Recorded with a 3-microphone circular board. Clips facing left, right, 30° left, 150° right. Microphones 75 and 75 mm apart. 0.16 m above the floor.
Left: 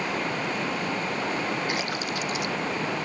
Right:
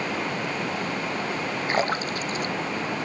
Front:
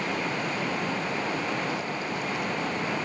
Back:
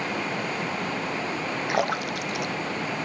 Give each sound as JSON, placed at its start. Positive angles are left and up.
{"t": 1.7, "sound": "a splash", "azimuth_deg": -140}